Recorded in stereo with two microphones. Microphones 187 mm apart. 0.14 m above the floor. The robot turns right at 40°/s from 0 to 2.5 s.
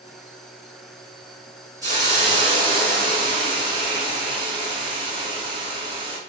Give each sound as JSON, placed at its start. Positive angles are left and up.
{"t": 1.8, "sound": "a hiss", "side_deg": -20, "distance_m": 1.4}